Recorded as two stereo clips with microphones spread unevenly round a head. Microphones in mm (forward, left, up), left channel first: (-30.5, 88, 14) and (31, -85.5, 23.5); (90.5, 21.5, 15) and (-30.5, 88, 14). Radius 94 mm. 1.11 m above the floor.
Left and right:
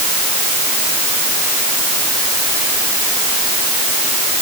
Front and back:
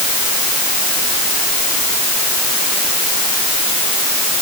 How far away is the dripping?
I don't hear dripping.